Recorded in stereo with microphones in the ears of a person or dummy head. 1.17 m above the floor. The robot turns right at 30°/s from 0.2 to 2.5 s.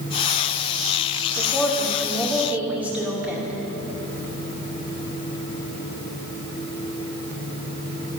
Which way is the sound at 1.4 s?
150° left.